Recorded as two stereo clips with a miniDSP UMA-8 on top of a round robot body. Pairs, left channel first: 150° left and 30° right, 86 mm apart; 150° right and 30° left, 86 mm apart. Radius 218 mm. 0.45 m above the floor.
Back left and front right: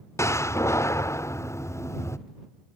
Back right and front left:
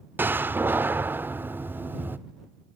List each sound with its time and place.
0.2 s a door slam: 95° left